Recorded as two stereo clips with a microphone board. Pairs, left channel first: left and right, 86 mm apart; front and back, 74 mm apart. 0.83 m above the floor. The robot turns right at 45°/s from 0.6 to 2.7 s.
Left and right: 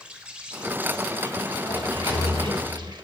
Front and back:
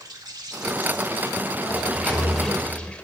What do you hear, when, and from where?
0.0 s an insect: 165° right, 0.9 m; by 3.0 s 75° right, 0.9 m
1.7 s a sliding door: 55° left, 1.3 m; by 2.9 s 100° left, 1.3 m